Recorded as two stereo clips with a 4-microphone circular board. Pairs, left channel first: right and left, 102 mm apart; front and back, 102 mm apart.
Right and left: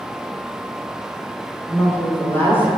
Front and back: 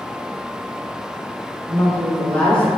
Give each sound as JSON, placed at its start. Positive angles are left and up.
{"t": 1.7, "sound": "a woman speaking", "azimuth_deg": -65, "distance_m": 1.1}